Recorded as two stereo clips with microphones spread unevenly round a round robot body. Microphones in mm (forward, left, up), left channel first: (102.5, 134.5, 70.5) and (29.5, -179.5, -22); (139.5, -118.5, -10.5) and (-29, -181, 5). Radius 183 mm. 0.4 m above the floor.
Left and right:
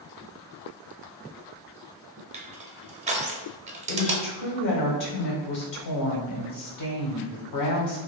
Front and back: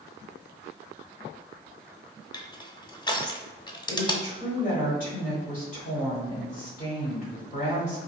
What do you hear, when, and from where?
2.3 s crushing: 45° right, 0.8 m
3.9 s a woman speaking: 55° left, 1.3 m